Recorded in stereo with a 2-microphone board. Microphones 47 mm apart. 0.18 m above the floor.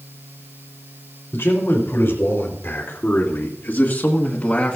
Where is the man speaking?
60° left (ahead or behind), 3.5 m; by 4.8 s 20° left (ahead or behind), 1.7 m.